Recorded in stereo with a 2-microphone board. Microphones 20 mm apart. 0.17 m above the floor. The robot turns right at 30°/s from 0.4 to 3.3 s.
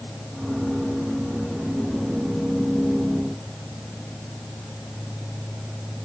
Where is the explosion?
I don't hear an explosion.